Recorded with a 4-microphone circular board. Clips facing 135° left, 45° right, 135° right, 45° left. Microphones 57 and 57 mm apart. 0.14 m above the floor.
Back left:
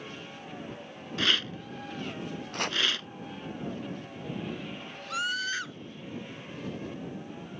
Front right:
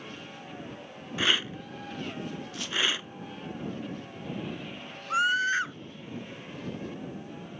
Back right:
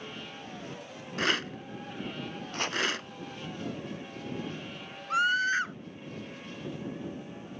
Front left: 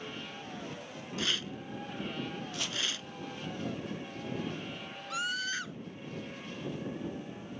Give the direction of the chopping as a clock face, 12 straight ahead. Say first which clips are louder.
Back left 3 dB, back right 10 dB; 6 o'clock.